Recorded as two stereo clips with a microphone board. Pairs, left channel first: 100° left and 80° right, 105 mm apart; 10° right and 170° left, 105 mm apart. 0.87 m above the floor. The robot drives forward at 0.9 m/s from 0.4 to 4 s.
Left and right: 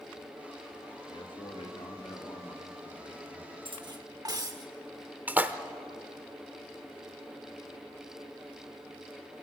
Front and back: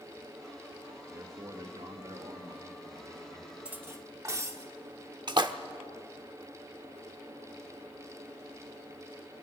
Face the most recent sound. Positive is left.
turn(degrees=-150)